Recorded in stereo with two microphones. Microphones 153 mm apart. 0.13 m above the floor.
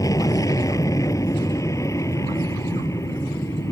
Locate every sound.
0.0 s an aircraft: 20° left (ahead or behind)